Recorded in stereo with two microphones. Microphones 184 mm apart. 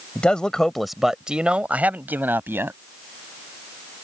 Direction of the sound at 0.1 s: 5° left (ahead or behind).